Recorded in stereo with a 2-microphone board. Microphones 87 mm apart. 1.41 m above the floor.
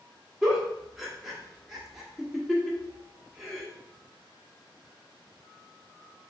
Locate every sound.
0.4 s a giggle: centre (ahead or behind), 1.1 m